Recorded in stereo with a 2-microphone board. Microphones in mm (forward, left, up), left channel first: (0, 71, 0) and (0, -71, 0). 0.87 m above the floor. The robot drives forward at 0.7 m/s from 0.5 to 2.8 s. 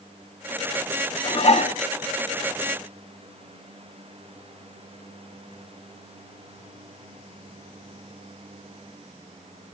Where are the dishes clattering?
40° left (ahead or behind), 0.9 m; by 1.8 s 60° left (ahead or behind), 0.7 m.